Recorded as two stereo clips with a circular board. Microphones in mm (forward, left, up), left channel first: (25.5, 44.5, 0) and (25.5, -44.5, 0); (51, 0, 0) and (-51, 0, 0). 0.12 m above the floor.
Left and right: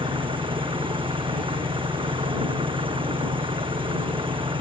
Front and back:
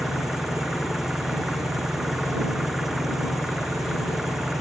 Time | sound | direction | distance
0.0 | an engine running | 90° right | ?